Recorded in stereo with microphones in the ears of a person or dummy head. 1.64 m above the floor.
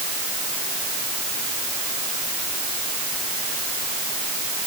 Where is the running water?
No running water in this recording.